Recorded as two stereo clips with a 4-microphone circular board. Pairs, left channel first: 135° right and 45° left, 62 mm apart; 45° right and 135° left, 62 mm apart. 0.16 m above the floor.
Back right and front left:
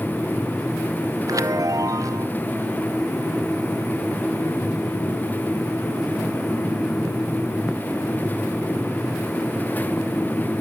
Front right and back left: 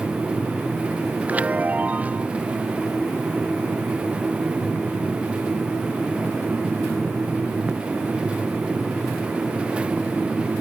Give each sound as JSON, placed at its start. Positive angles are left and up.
{"t": 1.3, "sound": "a chime", "azimuth_deg": 70}